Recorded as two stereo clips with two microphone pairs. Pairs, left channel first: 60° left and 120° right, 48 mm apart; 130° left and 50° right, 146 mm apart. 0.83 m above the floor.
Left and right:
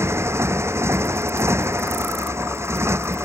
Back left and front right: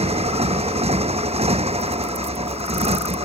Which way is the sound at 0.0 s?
95° right.